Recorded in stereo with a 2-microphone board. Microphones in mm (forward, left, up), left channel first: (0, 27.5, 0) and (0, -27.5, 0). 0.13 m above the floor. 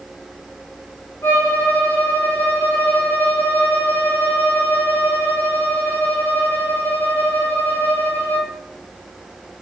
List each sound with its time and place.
1.2 s a violin: 60° left (ahead or behind), 5.5 m